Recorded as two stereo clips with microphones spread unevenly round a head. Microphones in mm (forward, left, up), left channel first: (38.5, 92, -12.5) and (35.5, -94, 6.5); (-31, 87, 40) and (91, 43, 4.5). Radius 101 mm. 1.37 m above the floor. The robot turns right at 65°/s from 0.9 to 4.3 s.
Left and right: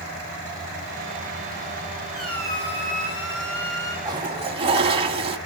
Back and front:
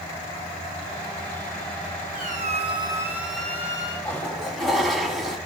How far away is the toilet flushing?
About 1.6 m.